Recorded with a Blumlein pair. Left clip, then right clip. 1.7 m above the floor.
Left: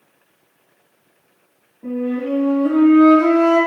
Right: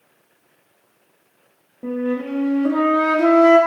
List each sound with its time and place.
1.8 s a flute: 20° right, 0.8 m